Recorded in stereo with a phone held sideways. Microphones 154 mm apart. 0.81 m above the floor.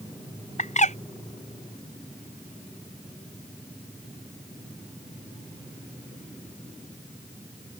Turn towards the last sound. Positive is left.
turn(degrees=55)  # may be behind; listen again after turning